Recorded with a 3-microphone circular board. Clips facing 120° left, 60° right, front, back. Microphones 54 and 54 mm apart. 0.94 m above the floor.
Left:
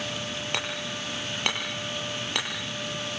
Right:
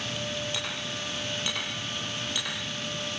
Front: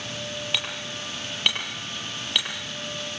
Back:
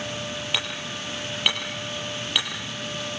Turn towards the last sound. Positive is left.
turn(degrees=95)